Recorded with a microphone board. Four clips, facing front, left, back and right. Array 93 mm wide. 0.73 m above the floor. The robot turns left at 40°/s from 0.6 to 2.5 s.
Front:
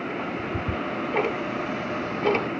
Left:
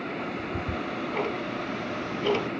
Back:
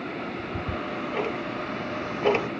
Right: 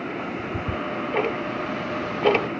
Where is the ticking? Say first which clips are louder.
Right 3 dB, front 3 dB; 30° right, 0.7 m; by 2.5 s 110° right, 0.7 m.